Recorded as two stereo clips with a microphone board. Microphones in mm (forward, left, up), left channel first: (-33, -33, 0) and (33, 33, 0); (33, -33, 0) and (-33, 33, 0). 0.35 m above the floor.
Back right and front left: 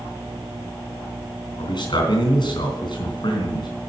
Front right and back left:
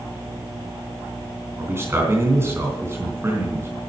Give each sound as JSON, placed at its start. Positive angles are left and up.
{"t": 1.6, "sound": "a man speaking", "azimuth_deg": -165, "distance_m": 3.5}